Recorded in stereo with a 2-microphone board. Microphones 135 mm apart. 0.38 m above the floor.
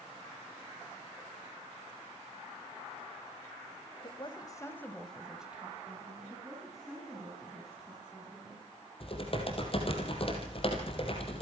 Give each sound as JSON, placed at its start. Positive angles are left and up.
{"t": 4.0, "sound": "a woman speaking", "side_deg": 45, "distance_m": 2.0}
{"t": 6.3, "sound": "a woman speaking", "side_deg": 0, "distance_m": 5.0}
{"t": 9.0, "sound": "typing on a keyboard", "side_deg": 45, "distance_m": 3.5}